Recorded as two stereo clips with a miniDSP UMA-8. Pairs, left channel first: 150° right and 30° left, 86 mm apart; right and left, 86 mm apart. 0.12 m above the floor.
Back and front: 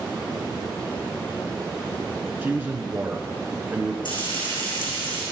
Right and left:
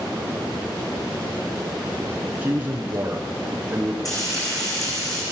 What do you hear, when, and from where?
2.4 s a man speaking: 60° left, 1.1 m
4.0 s frying: 135° right, 5.5 m